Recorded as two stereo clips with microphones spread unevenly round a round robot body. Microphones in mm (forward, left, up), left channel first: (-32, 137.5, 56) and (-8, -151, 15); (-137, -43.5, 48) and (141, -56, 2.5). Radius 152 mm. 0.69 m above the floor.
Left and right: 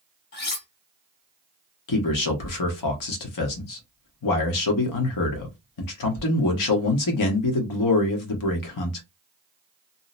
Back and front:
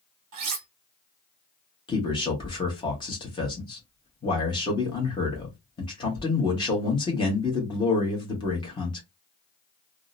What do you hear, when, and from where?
0.3 s cutlery clinking: 35° left, 0.7 m
1.9 s a man speaking: 100° left, 0.9 m